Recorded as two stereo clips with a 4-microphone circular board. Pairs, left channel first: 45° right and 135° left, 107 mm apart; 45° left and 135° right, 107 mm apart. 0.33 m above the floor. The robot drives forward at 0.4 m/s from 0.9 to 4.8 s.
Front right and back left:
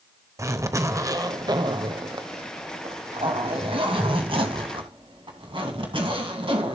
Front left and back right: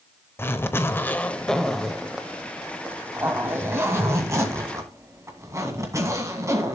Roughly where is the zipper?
Left.